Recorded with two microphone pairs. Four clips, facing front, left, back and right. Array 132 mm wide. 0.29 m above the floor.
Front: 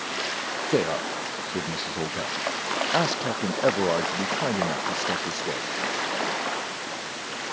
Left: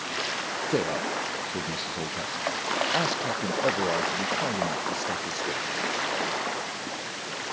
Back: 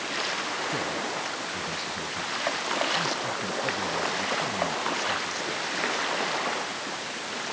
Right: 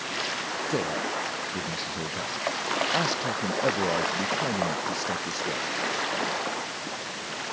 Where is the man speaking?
15° left; by 5.7 s 5° right.